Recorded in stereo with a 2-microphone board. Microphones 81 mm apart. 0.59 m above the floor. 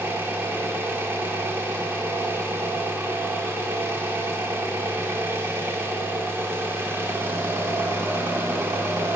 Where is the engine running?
30° right (ahead or behind), 0.9 m.